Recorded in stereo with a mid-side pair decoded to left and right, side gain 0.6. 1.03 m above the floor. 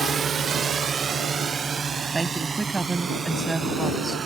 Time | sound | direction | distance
0.0 | a drone | 35° right | ?
2.1 | a woman speaking | 15° right | ?